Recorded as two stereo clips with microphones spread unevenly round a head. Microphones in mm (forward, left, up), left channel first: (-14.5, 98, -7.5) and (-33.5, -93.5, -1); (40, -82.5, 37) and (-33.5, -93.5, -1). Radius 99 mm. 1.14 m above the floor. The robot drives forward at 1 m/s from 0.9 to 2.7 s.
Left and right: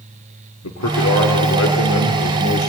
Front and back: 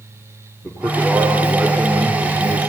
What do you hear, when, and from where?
0.6 s a man speaking: 90° left, 2.5 m; by 2.7 s 120° left, 3 m